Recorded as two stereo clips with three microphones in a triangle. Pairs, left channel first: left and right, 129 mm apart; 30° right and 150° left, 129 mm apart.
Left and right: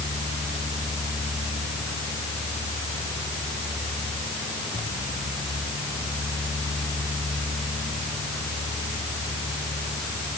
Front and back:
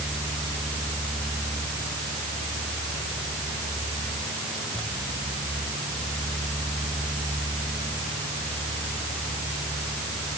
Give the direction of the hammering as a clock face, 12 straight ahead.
No hammering in this recording.